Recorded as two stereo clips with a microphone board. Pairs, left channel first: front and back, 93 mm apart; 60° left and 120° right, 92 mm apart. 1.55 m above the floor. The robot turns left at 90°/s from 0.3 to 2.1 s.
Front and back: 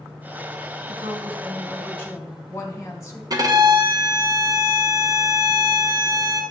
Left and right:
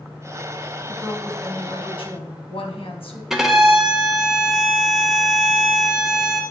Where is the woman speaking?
170° left, 1.4 m; by 3.2 s 60° left, 1.4 m.